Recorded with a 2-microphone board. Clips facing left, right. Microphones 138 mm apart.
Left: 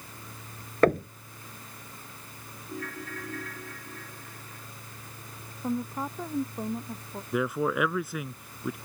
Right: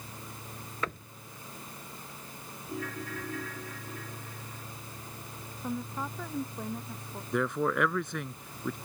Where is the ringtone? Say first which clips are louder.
Right 1 dB; centre (ahead or behind).